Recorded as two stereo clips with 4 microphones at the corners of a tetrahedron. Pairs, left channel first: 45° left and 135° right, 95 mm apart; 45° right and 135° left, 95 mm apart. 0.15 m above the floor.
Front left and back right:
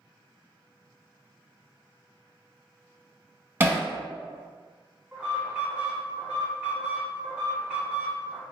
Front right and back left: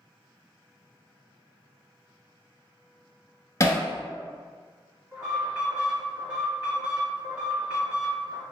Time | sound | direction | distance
3.6 | hammering | 80° right | 0.5 m
5.1 | an alarm | 175° right | 1.5 m